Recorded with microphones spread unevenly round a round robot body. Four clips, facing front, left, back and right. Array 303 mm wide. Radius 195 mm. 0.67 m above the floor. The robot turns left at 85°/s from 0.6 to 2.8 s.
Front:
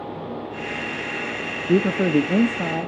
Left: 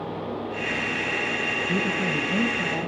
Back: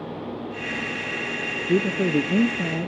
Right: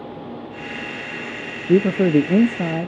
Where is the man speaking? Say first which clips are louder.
Right 14 dB, front 3 dB; 20° right, 0.6 m; by 2.9 s 115° right, 0.6 m.